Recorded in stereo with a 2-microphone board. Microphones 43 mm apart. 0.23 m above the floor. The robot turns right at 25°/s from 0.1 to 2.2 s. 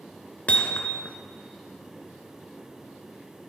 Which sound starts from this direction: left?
Hammering, at 0.5 s.